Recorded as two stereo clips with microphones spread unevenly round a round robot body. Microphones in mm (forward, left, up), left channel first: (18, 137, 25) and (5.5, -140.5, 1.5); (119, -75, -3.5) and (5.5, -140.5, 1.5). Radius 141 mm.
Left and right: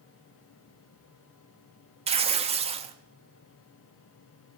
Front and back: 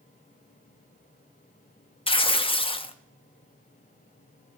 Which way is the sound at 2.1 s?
25° right.